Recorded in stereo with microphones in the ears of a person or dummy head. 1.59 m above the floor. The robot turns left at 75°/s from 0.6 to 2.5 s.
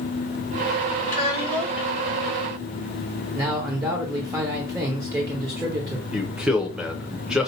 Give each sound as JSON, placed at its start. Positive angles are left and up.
{"t": 1.1, "sound": "a child speaking", "azimuth_deg": 45, "distance_m": 2.0}
{"t": 3.3, "sound": "a man speaking", "side_deg": -15, "distance_m": 1.0}
{"t": 6.1, "sound": "a man speaking", "side_deg": -5, "distance_m": 1.0}